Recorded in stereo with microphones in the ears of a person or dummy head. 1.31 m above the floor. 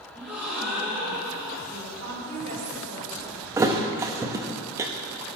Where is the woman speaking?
35° right (ahead or behind), 4 m.